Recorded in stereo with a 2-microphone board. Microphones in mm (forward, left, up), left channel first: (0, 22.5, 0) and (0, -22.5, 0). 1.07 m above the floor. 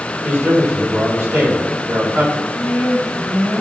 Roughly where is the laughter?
Right.